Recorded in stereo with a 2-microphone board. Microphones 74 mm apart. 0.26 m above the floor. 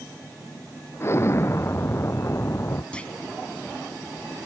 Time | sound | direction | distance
1.0 | an explosion | 35° left (ahead or behind) | ?
2.9 | a clunk | 15° left (ahead or behind) | ?